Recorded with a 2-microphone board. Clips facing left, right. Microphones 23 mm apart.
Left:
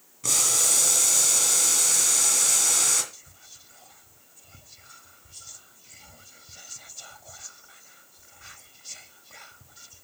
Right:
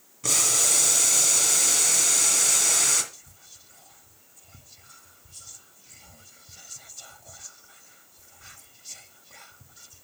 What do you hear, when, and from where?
0.2 s boiling: 10° right (ahead or behind), 2 m
3.1 s whispering: 10° left (ahead or behind), 0.6 m